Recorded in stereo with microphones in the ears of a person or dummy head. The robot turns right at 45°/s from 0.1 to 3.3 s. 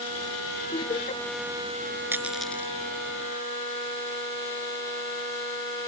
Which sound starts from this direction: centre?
A dropped coin, at 2.1 s.